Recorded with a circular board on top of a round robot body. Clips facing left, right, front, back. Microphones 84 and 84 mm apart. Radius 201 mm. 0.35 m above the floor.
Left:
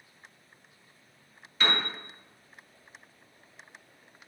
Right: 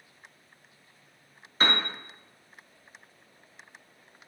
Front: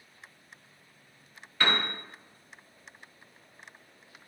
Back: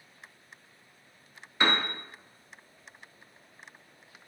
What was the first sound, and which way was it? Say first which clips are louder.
A piano: right 2 dB, back 1 dB; 120° right.